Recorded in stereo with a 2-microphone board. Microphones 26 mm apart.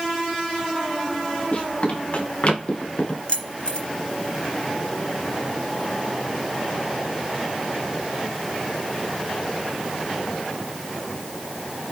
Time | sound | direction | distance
1.5 | running footsteps | 60° left (ahead or behind) | 4.5 m
3.3 | keys jangling | 40° left (ahead or behind) | 2.0 m